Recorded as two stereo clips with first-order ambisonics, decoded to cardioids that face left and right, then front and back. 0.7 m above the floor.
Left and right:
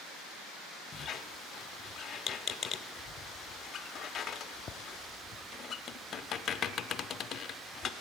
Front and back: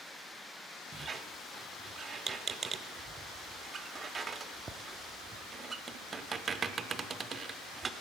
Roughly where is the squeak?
Behind left.